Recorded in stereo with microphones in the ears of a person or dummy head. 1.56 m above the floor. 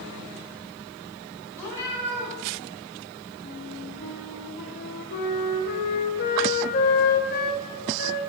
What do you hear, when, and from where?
1.6 s a cat meowing: 15° left (ahead or behind), 2.5 m
3.4 s a flute: 55° left (ahead or behind), 0.8 m